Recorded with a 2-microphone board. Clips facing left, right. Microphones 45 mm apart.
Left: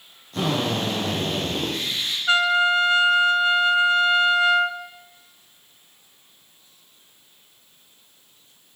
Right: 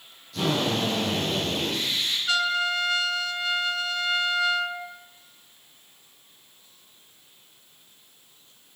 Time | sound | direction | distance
0.3 | a drill | 45° left (ahead or behind) | 5.5 m
2.3 | a trumpet | 35° left (ahead or behind) | 0.6 m